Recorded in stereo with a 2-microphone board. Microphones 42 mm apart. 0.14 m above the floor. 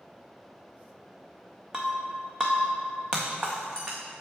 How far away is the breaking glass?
About 1.3 m.